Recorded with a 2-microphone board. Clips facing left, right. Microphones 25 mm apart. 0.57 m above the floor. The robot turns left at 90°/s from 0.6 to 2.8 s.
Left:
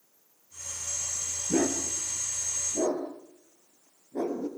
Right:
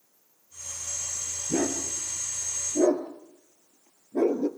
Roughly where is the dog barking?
Left.